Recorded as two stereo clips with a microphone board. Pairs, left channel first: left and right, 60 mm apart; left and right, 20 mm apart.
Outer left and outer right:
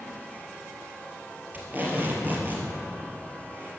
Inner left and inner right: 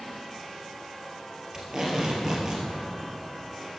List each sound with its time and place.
1.5 s tape being pulled: 30° right (ahead or behind), 2 m